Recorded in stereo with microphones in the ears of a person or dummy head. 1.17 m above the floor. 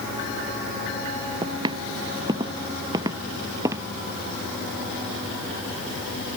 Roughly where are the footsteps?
Right.